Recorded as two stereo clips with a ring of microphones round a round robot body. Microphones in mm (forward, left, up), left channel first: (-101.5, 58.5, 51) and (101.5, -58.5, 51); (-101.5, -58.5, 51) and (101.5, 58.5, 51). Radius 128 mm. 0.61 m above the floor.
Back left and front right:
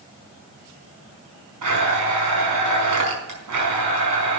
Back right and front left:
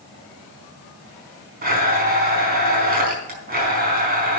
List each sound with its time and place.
1.6 s a blender: 25° right, 4.5 m